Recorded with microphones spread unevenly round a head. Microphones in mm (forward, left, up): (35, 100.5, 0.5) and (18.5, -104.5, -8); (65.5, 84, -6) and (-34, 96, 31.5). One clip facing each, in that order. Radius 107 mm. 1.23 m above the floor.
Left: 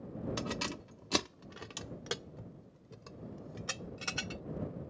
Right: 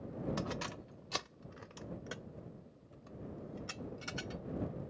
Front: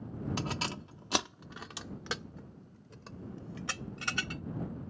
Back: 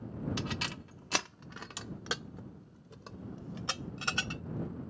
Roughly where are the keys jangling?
Ahead left.